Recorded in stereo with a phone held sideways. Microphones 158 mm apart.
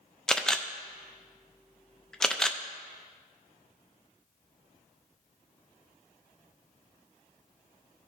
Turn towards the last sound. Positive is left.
turn(degrees=5)  # may be behind; listen again after turning